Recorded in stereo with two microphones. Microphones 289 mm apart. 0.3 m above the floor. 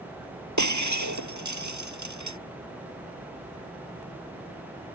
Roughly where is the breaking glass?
Right.